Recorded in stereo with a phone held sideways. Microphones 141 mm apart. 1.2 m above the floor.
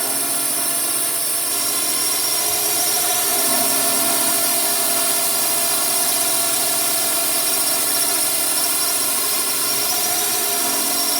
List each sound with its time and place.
0.0 s a drone: centre (ahead or behind)